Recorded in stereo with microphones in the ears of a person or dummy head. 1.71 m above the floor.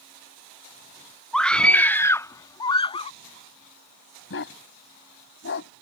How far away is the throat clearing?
No throat clearing in this recording.